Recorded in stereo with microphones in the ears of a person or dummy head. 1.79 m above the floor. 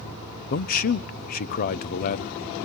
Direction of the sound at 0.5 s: 45° left (ahead or behind).